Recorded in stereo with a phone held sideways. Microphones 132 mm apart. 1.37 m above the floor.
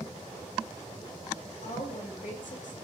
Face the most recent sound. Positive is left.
turn(degrees=75)  # may be behind; listen again after turning